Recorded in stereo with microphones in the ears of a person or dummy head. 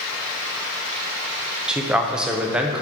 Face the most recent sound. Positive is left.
turn(degrees=-5)  # may be behind; listen again after turning